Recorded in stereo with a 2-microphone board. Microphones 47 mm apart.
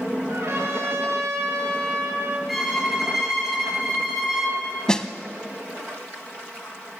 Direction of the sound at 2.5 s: 5° right (ahead or behind).